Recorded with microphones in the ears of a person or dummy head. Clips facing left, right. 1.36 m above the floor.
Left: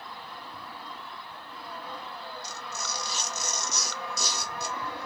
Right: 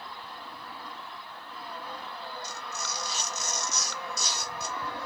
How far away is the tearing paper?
About 1.1 m.